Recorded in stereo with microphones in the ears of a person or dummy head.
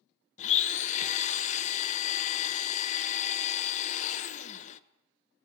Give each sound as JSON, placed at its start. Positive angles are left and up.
{"t": 0.4, "sound": "a blender", "side_deg": 35, "distance_m": 0.6}